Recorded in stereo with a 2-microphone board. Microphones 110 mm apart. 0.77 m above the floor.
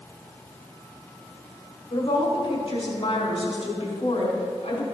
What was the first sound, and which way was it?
A woman speaking, 55° left (ahead or behind).